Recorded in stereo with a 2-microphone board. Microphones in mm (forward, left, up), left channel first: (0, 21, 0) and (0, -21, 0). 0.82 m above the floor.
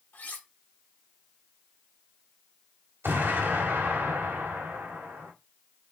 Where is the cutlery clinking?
45° left (ahead or behind), 1.1 m.